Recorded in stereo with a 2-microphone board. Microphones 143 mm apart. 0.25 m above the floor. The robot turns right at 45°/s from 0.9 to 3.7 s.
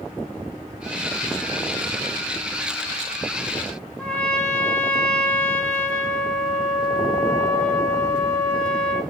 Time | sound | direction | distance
4.0 | a trumpet | 5° left (ahead or behind) | 1.6 m